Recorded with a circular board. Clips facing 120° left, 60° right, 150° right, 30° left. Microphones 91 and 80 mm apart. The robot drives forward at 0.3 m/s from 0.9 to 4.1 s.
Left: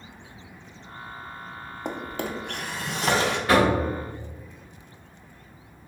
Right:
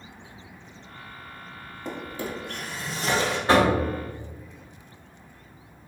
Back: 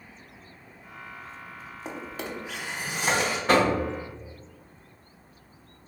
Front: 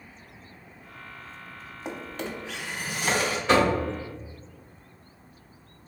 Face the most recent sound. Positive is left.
turn(degrees=-125)